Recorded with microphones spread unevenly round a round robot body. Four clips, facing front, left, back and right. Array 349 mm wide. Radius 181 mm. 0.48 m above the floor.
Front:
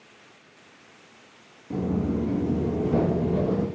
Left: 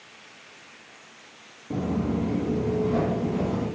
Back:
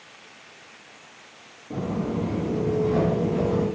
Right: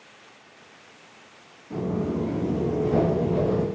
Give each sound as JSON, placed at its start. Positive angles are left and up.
{"t": 1.7, "sound": "footsteps", "azimuth_deg": 65, "distance_m": 0.6}